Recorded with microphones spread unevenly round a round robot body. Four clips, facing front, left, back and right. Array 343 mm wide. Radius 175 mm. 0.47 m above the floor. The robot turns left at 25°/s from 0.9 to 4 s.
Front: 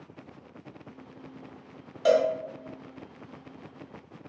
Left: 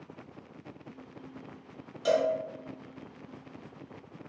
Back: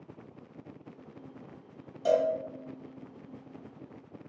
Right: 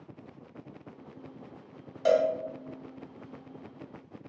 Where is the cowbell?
15° right, 0.7 m; by 2.3 s 25° right, 0.7 m.